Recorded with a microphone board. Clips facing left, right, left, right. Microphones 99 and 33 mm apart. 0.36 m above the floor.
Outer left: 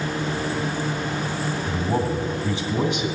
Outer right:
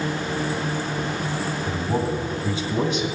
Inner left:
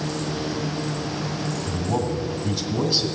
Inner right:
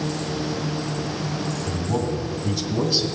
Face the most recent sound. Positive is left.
turn(degrees=10)  # may be behind; listen again after turning